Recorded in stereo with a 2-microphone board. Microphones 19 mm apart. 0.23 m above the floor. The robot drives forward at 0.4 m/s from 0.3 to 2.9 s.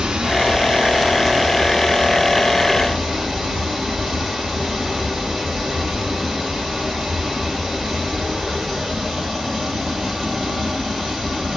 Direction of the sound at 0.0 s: 50° right (ahead or behind).